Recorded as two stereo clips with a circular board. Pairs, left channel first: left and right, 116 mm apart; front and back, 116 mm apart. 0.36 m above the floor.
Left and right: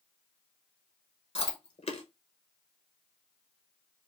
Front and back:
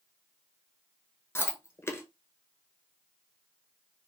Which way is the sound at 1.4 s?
70° left.